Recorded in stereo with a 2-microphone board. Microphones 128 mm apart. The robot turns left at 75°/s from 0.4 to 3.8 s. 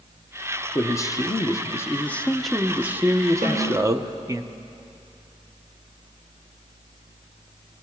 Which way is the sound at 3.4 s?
85° right.